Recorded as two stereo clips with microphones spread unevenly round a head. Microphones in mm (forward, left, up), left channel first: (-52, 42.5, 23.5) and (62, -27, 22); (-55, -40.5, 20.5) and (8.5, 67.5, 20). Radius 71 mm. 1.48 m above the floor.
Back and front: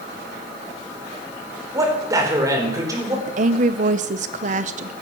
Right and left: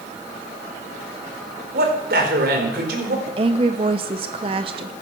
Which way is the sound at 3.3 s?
5° left.